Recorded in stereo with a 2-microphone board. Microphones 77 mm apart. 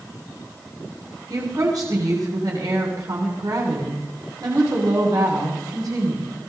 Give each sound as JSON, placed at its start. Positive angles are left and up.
{"t": 1.3, "sound": "a woman speaking", "side_deg": -55, "distance_m": 6.5}